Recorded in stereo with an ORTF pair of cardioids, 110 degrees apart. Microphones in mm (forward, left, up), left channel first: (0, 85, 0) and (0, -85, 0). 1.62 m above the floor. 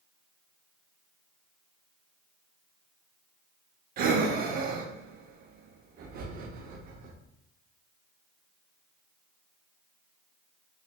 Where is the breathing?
60° right, 0.7 m.